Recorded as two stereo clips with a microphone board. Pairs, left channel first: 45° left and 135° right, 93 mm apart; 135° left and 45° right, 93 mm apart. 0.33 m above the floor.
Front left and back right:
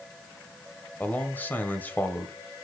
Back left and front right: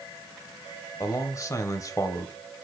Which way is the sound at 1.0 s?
105° left.